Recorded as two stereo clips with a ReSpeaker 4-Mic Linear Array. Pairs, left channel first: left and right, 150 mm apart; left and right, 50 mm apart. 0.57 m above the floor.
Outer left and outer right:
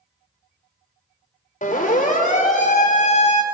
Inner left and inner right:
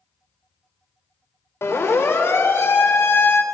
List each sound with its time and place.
1.6 s a siren: 60° left (ahead or behind), 3 m; by 3.4 s 50° left (ahead or behind), 2.5 m